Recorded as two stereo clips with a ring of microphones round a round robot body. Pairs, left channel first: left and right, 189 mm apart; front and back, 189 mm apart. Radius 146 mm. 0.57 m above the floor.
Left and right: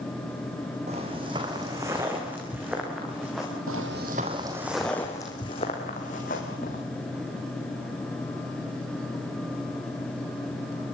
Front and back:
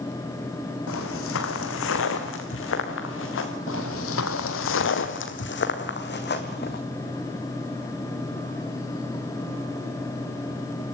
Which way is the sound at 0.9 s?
20° right.